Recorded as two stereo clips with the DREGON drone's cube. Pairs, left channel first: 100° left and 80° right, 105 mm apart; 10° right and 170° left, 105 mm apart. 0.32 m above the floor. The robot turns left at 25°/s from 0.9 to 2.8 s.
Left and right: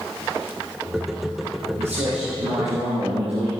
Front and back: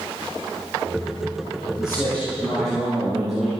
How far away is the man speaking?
About 8 m.